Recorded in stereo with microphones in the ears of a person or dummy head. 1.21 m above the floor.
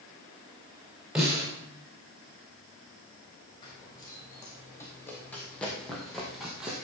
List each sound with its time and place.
1.1 s a snare drum: 5° right (ahead or behind), 5 m
3.6 s running footsteps: 25° left (ahead or behind), 3.5 m; by 6.8 s 5° right (ahead or behind), 3 m